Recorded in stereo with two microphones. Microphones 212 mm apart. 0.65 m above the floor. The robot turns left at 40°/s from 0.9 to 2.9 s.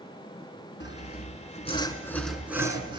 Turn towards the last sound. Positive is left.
turn(degrees=-20)